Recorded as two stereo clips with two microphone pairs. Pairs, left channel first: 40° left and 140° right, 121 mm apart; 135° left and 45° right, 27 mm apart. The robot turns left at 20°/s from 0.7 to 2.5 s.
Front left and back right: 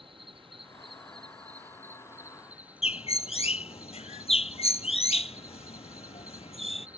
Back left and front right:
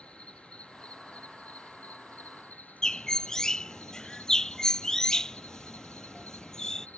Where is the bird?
70° left.